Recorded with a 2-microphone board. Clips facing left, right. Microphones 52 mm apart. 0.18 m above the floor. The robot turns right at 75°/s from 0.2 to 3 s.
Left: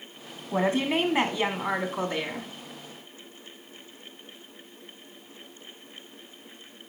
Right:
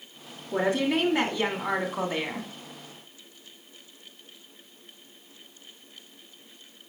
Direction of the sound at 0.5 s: 30° left (ahead or behind).